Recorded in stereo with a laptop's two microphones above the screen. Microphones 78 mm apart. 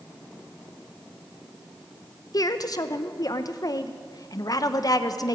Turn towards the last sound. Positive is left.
turn(degrees=55)  # may be behind; listen again after turning